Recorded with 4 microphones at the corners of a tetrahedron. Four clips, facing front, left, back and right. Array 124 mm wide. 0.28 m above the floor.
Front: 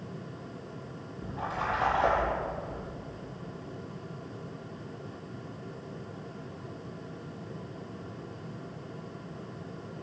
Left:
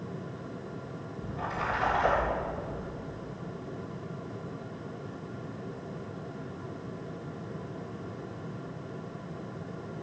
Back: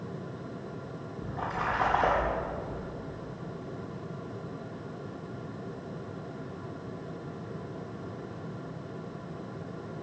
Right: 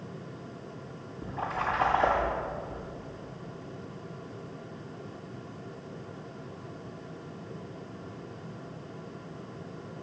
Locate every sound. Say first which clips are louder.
1.2 s a splash: right 2 dB, back 1 dB; 140° right, 6.5 m